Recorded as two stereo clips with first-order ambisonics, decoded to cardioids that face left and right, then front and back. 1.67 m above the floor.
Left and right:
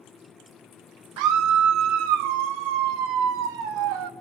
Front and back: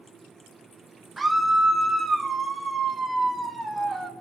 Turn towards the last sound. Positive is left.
turn(degrees=-105)